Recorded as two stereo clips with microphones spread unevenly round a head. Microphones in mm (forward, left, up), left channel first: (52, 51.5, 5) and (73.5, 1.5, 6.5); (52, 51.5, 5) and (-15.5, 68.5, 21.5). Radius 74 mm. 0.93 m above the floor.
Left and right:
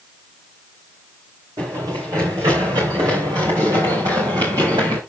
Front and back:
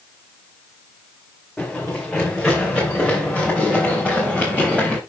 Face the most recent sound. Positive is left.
turn(degrees=-115)